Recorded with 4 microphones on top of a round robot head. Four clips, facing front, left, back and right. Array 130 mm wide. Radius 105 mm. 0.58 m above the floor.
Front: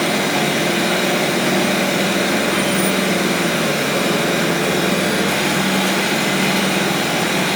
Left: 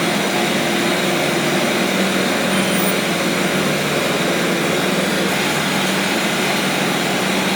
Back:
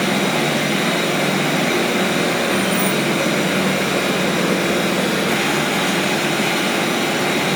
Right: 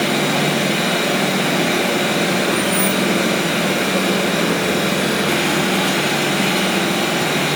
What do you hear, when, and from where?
0.0 s running water: straight ahead, 1.6 m
2.5 s keys jangling: 160° right, 2 m